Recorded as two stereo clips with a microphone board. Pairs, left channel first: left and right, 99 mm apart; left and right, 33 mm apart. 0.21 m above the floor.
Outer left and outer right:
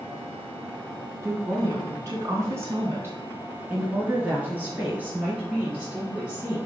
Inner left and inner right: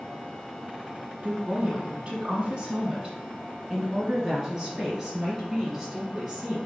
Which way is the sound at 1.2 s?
35° right (ahead or behind).